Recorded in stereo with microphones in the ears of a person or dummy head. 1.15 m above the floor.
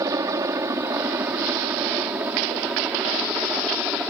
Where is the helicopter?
15° right (ahead or behind); by 4.1 s centre (ahead or behind).